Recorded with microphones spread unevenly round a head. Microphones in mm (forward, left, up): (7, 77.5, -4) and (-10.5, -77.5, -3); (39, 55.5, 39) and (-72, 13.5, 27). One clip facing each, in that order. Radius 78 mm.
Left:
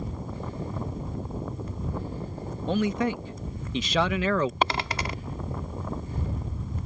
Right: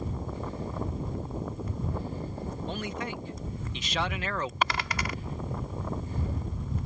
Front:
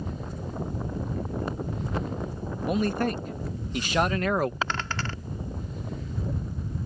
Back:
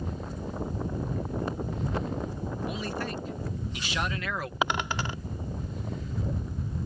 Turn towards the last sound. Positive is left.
turn(degrees=125)